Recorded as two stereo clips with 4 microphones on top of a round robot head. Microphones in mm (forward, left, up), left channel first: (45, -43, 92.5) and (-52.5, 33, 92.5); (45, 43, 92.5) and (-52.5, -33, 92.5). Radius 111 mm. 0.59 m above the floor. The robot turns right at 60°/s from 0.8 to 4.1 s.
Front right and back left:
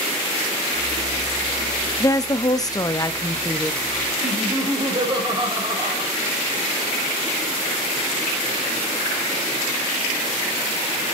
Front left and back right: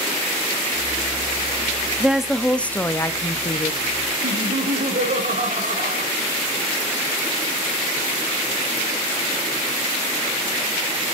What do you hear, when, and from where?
2.0 s a woman speaking: 70° right, 0.8 m; by 3.8 s 40° left, 0.8 m
4.2 s laughter: 160° right, 3.5 m